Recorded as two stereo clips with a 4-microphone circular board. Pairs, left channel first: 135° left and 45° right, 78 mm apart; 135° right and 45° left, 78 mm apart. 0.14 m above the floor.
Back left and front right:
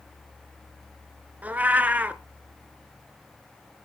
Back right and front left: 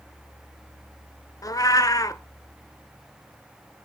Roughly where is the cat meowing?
Right.